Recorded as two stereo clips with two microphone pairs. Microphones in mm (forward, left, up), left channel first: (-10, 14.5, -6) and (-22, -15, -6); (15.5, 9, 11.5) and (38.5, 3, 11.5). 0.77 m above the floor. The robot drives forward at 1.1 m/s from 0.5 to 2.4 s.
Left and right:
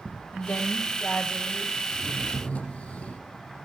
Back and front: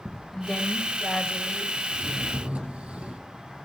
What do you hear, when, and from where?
0.3 s a woman speaking: 100° left, 3 m; by 1.8 s 120° left, 3.5 m
1.9 s a drawer: 15° left, 7 m; by 3.2 s 20° left, 6.5 m